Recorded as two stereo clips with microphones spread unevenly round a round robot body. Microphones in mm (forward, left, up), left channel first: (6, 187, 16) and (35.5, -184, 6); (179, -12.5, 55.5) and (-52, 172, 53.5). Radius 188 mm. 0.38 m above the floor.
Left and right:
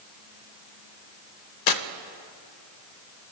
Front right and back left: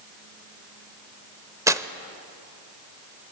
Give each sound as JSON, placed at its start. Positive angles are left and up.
{"t": 1.7, "sound": "tearing paper", "azimuth_deg": 60, "distance_m": 0.7}